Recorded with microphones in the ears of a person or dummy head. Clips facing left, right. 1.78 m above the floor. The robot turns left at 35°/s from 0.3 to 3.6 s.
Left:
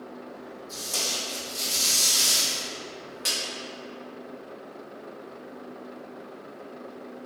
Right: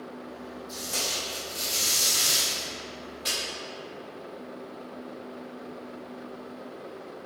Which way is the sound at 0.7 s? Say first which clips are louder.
Left 1 dB; 125° right.